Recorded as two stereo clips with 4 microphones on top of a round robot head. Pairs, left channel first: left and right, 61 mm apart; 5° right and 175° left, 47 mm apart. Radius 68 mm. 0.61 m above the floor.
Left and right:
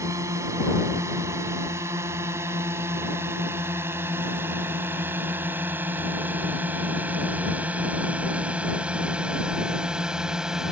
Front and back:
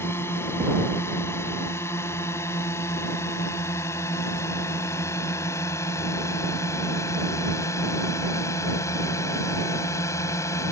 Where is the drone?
45° right; by 10.7 s 5° right.